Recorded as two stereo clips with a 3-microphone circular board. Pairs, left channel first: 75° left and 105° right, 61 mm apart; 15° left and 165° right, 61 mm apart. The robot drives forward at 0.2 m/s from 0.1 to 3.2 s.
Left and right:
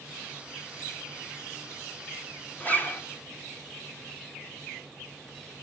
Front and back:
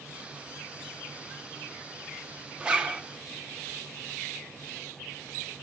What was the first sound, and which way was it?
A zipper, 125° left.